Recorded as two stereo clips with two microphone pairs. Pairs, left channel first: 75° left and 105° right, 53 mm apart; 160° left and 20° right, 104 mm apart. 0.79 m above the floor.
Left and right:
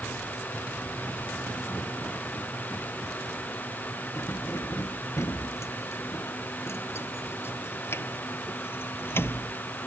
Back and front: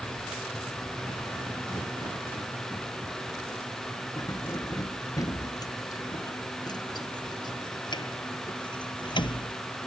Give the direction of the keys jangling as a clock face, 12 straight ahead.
9 o'clock.